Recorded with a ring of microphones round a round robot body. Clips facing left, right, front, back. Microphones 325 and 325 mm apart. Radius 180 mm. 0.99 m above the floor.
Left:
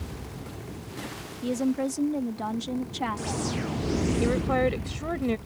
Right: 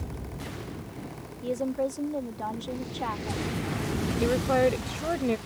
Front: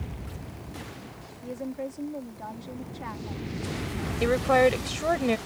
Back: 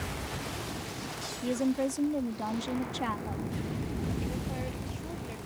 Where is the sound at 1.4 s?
135° left.